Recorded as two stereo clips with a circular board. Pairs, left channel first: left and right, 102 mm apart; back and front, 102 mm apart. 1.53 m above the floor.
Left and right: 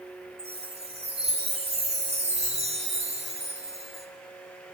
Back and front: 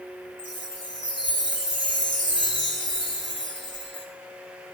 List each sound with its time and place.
0.4 s a chime: 95° right, 3 m